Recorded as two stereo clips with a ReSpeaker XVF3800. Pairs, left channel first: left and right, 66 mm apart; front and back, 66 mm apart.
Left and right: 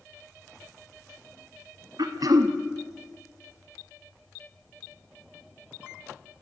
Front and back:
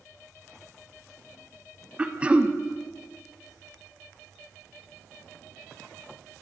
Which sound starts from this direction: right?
Throat clearing, at 2.0 s.